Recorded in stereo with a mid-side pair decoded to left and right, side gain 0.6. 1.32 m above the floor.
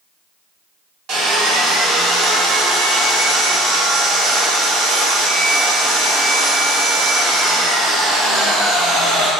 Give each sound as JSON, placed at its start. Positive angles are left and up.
{"t": 1.1, "sound": "sawing", "azimuth_deg": -65, "distance_m": 0.9}